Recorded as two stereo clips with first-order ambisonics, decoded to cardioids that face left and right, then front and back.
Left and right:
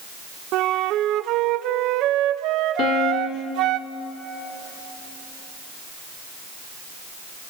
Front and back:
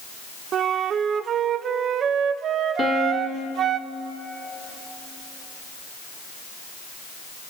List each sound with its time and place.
0.5 s a flute: 125° right, 0.6 m
2.8 s a piano: 65° left, 1.3 m